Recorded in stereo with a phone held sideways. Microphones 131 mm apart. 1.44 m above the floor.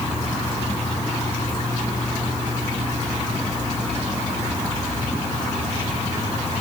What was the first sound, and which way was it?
Only background noise.